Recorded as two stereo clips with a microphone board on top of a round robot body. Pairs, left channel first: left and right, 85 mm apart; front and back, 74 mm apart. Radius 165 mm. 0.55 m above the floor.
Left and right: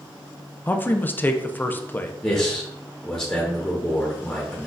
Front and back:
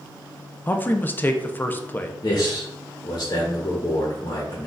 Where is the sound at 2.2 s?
20° left, 1.3 m.